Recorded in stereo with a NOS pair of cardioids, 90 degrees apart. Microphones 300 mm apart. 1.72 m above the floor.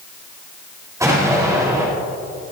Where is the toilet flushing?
I don't hear a toilet flushing.